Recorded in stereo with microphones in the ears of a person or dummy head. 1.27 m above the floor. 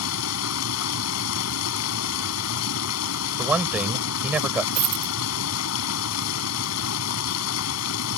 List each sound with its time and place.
0.0 s running water: 80° left
3.4 s a man speaking: 5° right (ahead or behind)
4.8 s a dropped coin: 20° right (ahead or behind)